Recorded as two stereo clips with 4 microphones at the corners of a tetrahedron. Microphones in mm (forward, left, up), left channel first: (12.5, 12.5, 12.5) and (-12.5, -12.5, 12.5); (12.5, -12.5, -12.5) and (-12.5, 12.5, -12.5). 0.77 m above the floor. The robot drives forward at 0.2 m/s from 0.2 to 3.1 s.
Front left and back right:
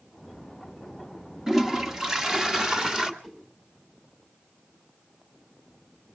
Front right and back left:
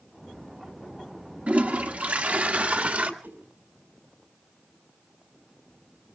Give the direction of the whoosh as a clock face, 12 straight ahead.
7 o'clock.